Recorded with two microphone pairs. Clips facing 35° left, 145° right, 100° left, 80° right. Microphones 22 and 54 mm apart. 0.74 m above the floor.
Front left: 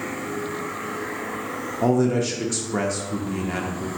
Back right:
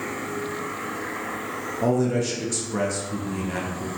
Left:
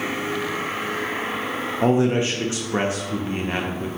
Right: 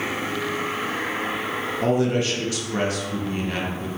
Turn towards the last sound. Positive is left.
turn(degrees=95)